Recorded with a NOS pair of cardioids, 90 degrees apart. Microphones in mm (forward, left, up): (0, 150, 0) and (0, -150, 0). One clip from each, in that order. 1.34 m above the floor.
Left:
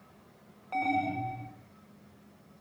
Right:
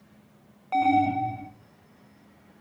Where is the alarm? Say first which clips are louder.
Right 8 dB; 35° right, 1.6 m.